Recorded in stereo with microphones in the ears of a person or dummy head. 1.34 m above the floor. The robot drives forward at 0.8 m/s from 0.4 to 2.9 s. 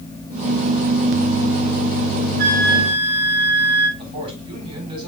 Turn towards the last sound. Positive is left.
turn(degrees=-30)  # may be behind; listen again after turning